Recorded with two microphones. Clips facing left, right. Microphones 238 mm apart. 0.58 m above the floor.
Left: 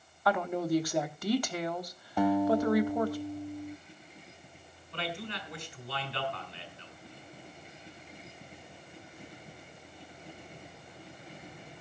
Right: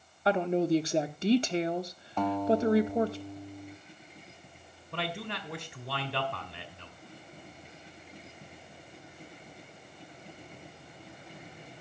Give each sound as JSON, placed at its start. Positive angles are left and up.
{"t": 0.2, "sound": "a woman speaking", "side_deg": -25, "distance_m": 0.7}
{"t": 2.2, "sound": "a guitar", "side_deg": 10, "distance_m": 0.8}
{"t": 4.9, "sound": "a man speaking", "side_deg": -70, "distance_m": 2.0}